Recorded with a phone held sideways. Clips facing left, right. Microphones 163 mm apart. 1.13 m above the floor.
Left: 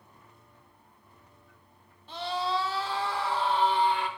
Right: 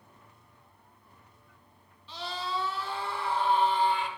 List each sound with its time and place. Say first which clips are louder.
2.1 s a scream: left 5 dB; 50° left (ahead or behind), 1.7 m; by 4.1 s 60° left (ahead or behind), 3 m